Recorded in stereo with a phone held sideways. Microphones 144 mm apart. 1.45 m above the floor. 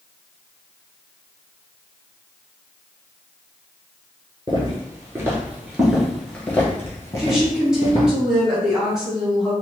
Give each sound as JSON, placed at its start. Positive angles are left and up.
{"t": 4.5, "sound": "footsteps", "side_deg": -30, "distance_m": 1.6}
{"t": 7.2, "sound": "a woman speaking", "side_deg": -5, "distance_m": 1.8}